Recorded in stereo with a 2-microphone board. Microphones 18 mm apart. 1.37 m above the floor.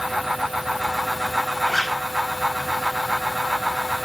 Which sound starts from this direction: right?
A zipper, at 1.7 s.